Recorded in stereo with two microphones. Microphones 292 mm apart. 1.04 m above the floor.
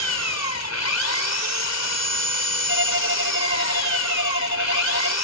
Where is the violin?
45° right (ahead or behind).